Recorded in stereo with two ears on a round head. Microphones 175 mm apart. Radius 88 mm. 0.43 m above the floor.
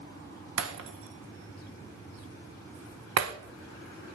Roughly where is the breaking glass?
Right.